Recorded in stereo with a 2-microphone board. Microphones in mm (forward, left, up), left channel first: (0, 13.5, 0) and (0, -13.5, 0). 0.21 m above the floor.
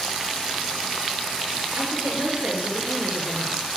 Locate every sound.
1.8 s a woman speaking: 60° right (ahead or behind), 3.5 m